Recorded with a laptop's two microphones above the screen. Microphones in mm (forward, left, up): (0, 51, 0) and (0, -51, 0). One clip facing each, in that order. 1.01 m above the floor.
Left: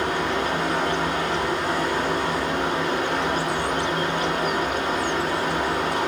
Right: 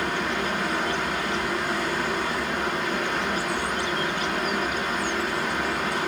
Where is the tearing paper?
I don't hear tearing paper.